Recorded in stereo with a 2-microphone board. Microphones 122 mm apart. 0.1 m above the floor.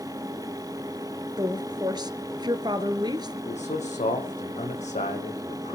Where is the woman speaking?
35° right (ahead or behind), 1.6 m.